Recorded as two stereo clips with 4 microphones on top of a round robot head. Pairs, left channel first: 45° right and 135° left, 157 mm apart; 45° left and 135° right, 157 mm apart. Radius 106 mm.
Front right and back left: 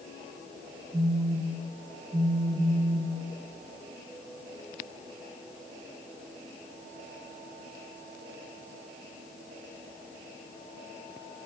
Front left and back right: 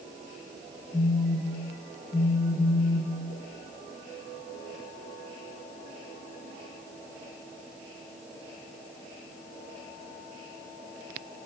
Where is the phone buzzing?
100° left, 0.8 m.